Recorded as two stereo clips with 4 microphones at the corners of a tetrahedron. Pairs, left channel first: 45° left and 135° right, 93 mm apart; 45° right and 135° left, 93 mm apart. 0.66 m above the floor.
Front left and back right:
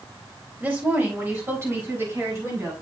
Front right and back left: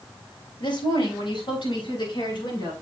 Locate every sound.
0.6 s a woman speaking: 65° right, 4 m; by 2.7 s 75° right, 6.5 m